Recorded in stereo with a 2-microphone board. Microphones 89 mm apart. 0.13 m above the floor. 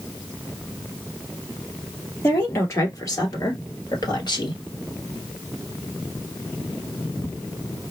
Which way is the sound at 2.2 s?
30° left (ahead or behind).